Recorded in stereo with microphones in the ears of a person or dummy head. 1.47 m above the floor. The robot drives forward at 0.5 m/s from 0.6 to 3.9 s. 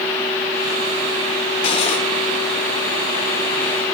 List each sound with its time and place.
1.6 s cutlery clinking: 35° left (ahead or behind), 2.5 m